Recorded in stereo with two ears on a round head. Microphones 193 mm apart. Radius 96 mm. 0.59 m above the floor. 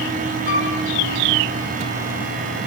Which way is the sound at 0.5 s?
40° left (ahead or behind).